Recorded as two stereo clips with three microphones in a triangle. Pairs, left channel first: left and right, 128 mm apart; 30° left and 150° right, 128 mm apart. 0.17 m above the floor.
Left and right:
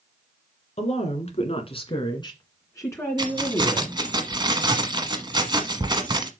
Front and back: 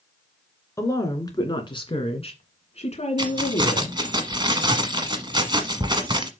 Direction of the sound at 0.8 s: 90° left.